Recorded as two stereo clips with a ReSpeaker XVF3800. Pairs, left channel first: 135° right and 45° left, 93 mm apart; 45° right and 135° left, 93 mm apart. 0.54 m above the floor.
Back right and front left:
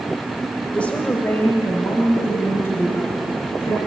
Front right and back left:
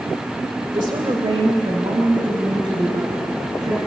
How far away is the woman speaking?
About 1.6 m.